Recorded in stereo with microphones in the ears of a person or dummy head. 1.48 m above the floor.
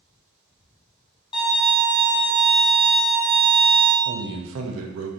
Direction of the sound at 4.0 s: 80° right.